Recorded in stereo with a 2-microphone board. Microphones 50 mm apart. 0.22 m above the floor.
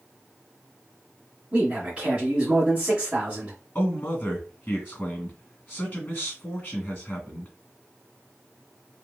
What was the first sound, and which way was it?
A man speaking, 25° right (ahead or behind).